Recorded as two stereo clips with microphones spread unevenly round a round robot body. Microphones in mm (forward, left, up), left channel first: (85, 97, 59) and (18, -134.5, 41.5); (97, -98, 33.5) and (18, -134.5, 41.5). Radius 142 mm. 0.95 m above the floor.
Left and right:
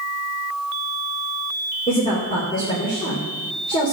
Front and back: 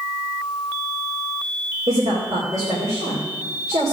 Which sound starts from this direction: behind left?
A woman speaking, at 1.9 s.